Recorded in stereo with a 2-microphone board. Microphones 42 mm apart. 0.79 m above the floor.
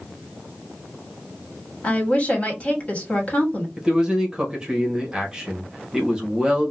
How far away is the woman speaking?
About 1.7 m.